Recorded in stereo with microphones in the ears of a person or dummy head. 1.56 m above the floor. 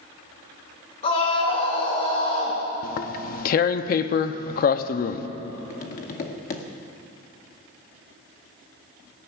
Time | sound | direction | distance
1.0 | a scream | 35° left (ahead or behind) | 2.5 m
2.8 | tearing paper | 50° left (ahead or behind) | 0.5 m
5.7 | tapping | 35° left (ahead or behind) | 0.8 m